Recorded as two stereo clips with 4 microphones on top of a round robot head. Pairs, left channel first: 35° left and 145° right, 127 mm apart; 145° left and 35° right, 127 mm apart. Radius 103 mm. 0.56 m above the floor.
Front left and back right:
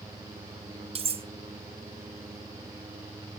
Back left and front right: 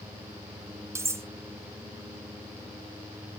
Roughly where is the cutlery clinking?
Right.